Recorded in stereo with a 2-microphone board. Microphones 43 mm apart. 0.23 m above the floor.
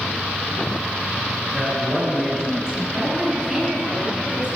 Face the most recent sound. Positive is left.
turn(degrees=-20)  # may be behind; listen again after turning